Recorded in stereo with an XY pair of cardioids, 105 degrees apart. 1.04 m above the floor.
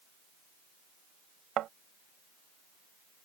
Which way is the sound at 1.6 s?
70° right.